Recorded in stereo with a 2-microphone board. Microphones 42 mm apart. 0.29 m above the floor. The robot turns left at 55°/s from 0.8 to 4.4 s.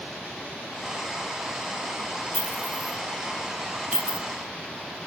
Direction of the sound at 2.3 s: 60° left (ahead or behind).